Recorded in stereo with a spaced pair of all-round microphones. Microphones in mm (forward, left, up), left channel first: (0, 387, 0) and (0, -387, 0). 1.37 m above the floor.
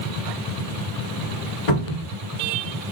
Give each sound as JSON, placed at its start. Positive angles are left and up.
{"t": 1.7, "sound": "a cupboard door", "side_deg": 60, "distance_m": 2.0}